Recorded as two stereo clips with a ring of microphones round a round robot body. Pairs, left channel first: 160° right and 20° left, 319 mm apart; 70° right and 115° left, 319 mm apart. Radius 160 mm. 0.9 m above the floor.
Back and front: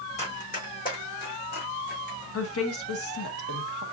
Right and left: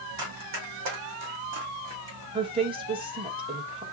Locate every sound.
0.2 s running footsteps: 135° left, 3 m; by 2.2 s 145° left, 3.5 m
2.3 s a woman speaking: straight behind, 1.1 m